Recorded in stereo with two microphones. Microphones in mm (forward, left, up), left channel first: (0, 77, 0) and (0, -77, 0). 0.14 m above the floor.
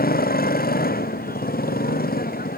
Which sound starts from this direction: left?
A motorcycle, at 0.0 s.